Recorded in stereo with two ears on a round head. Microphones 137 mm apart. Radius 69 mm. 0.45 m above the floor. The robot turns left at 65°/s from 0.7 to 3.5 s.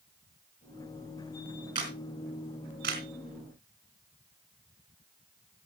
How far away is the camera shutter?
About 3.5 m.